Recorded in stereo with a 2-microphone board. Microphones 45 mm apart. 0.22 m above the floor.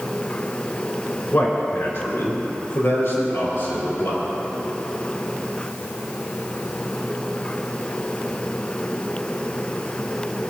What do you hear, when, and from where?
1.3 s a man speaking: 55° left (ahead or behind), 2.5 m; by 4.2 s 75° left (ahead or behind), 6.5 m